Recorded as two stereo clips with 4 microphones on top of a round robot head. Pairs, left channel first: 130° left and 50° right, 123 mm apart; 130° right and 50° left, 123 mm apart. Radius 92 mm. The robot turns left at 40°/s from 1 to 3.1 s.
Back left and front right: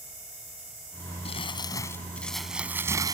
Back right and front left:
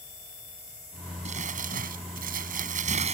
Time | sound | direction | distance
1.2 | crumpling | 85° left | ?